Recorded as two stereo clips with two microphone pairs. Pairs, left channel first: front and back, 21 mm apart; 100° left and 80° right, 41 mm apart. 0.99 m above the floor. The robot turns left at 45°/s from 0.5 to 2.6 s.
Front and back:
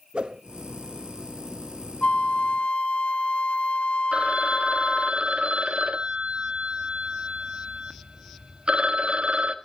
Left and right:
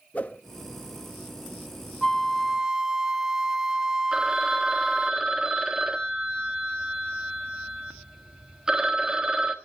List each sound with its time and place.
0.1 s a whoosh: 150° left, 1.0 m
2.0 s a flute: 15° left, 0.5 m; by 5.1 s 10° right, 0.5 m
4.1 s a phone ringing: 155° right, 1.4 m